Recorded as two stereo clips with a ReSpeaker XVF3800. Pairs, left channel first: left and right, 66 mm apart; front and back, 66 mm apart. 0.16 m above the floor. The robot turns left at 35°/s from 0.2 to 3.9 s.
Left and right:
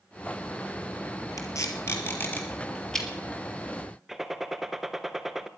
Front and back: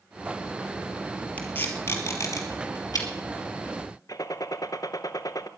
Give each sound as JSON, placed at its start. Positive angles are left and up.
{"t": 1.4, "sound": "tape being pulled", "azimuth_deg": 65, "distance_m": 3.0}
{"t": 4.1, "sound": "a gunshot", "azimuth_deg": -5, "distance_m": 0.9}